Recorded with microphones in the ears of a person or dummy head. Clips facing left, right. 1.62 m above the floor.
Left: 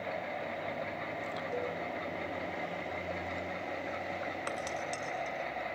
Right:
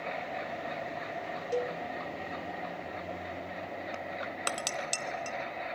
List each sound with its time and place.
1.5 s a cowbell: 40° right (ahead or behind), 2 m
4.5 s dishes clattering: 25° right (ahead or behind), 0.7 m